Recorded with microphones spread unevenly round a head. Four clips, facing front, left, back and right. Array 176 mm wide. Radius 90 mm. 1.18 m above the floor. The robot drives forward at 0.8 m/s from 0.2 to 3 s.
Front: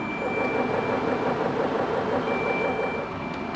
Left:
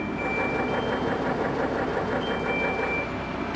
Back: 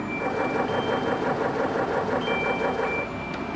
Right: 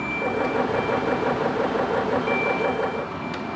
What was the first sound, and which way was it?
Only background noise.